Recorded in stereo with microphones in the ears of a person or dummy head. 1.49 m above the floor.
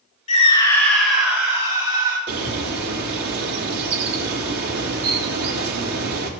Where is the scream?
35° left (ahead or behind), 1.6 m; by 2.2 s 20° right (ahead or behind), 3.5 m.